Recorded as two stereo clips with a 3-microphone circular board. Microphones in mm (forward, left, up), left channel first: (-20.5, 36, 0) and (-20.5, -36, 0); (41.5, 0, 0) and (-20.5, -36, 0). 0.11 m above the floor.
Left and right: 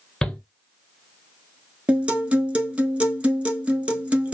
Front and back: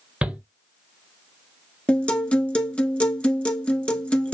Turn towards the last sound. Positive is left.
turn(degrees=-30)